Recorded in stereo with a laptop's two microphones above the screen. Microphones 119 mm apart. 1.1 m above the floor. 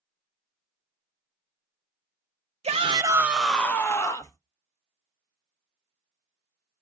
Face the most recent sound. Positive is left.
turn(degrees=30)  # may be behind; listen again after turning